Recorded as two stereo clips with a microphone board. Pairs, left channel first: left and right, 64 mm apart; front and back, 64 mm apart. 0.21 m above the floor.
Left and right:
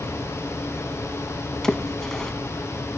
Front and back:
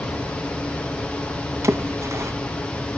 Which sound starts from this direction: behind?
A splash, at 1.6 s.